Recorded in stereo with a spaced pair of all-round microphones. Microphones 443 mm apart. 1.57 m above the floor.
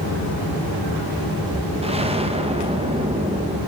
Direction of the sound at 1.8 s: 15° right (ahead or behind).